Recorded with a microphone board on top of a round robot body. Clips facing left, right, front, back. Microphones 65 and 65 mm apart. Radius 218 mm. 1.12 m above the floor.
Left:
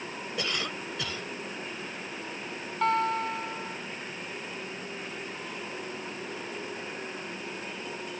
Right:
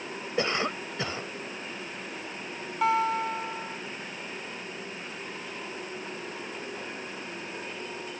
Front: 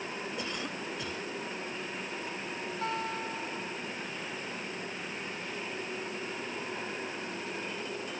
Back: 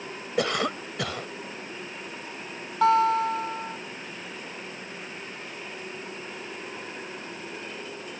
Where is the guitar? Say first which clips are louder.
Right 1 dB, back 16 dB; 175° right.